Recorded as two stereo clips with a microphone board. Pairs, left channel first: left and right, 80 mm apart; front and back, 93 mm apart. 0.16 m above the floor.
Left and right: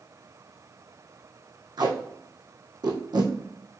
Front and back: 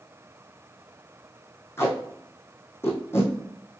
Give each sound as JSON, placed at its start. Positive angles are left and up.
{"t": 1.8, "sound": "tape being pulled", "azimuth_deg": -65, "distance_m": 2.5}